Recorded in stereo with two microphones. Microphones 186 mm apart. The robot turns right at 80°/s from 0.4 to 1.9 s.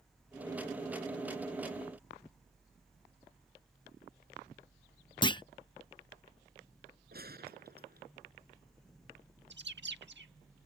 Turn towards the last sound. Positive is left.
turn(degrees=-75)  # may be behind; listen again after turning